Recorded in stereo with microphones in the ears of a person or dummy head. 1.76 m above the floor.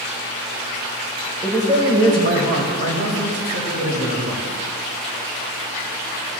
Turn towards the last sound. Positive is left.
turn(degrees=-85)